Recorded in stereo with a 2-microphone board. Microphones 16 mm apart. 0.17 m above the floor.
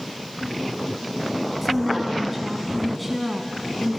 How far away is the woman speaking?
About 1.9 m.